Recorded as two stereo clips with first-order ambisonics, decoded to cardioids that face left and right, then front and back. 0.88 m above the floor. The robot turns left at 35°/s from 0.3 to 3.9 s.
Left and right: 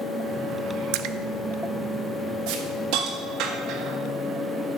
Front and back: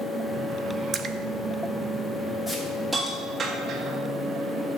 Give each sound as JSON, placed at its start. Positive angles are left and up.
{"t": 0.9, "sound": "a splash", "azimuth_deg": -110, "distance_m": 0.5}
{"t": 2.5, "sound": "a hiss", "azimuth_deg": -85, "distance_m": 1.6}